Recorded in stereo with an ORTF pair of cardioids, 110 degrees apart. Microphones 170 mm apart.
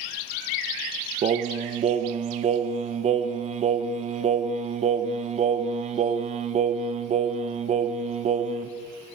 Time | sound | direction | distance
1.2 | singing | 45° right | 0.7 m